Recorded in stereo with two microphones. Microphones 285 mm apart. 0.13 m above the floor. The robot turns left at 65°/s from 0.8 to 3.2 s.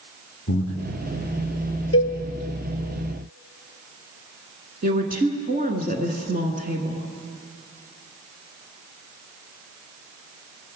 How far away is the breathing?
About 1.3 m.